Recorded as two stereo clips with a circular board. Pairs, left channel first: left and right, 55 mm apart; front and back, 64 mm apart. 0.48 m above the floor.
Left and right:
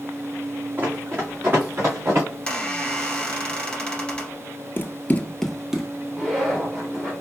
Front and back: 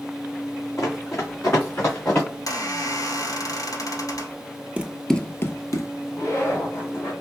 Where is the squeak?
15° left, 1.2 m.